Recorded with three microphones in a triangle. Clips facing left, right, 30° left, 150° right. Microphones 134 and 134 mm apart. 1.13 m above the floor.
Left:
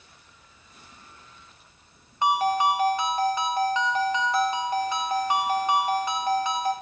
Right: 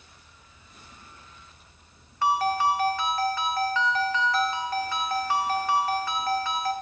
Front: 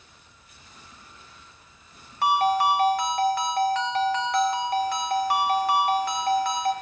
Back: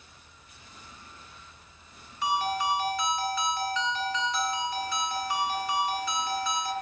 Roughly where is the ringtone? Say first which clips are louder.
Left 1 dB, front 7 dB; ahead.